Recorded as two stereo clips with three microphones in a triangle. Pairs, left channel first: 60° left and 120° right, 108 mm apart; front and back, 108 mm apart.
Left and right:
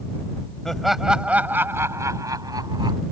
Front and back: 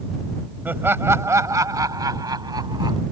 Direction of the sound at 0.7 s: 140° left.